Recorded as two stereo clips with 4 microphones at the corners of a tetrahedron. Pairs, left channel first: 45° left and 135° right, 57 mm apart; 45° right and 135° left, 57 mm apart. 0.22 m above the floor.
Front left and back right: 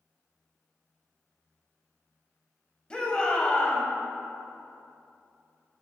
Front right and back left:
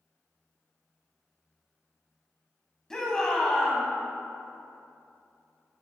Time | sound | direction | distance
2.9 | a shout | 15° left | 1.6 m